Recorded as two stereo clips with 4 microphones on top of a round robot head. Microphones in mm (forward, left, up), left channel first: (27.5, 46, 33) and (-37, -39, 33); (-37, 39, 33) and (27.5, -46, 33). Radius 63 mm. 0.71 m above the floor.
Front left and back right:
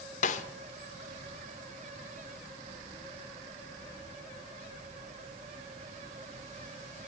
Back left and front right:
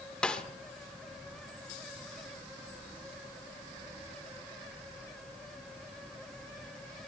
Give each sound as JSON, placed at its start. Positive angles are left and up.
{"t": 0.2, "sound": "a snare drum", "azimuth_deg": 45, "distance_m": 1.1}